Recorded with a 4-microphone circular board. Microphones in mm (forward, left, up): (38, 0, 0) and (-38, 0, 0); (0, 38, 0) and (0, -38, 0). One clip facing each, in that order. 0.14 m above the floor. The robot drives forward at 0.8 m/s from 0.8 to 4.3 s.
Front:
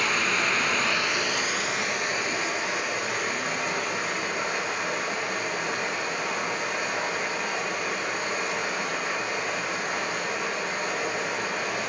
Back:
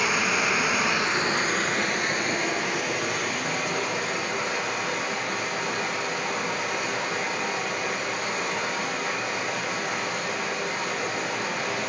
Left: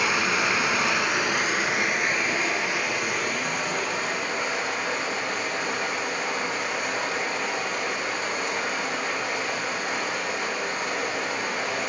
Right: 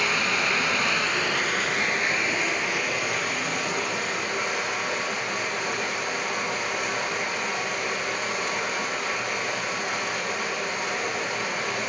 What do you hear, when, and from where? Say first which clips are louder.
0.0 s running water: back 1 dB, left 1 dB; 125° left, 0.8 m; by 11.9 s 175° left, 3 m